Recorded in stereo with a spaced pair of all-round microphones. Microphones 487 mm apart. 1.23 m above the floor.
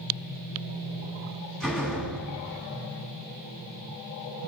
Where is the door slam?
Centre (ahead or behind), 8.5 m.